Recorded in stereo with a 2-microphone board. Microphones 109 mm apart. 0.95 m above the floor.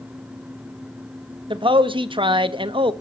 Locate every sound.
1.5 s a man speaking: 50° right (ahead or behind), 1.4 m